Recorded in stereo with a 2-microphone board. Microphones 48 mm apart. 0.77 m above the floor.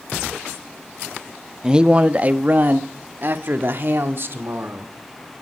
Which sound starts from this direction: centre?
A man speaking, at 1.6 s.